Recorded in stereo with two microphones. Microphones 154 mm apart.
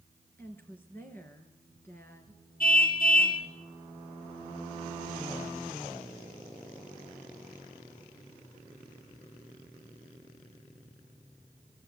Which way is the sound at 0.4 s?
15° left (ahead or behind).